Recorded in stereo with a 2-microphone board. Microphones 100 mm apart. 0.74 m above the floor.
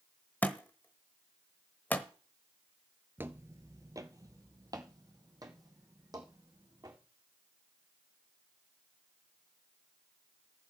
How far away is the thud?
About 1.0 m.